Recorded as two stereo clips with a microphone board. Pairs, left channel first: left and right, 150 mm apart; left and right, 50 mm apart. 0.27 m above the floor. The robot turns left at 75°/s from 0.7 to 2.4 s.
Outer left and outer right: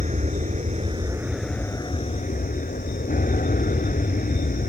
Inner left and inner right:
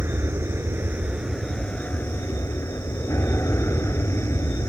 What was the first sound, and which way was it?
An aircraft, 125° right.